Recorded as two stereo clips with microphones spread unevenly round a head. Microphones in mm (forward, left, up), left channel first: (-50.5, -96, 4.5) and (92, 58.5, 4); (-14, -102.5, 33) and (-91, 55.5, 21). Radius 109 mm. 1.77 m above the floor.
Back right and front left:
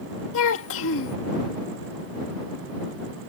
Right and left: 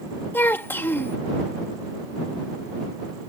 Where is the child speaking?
140° right.